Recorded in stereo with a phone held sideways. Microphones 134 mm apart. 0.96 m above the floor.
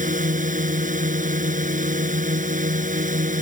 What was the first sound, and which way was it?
A drone, 85° right.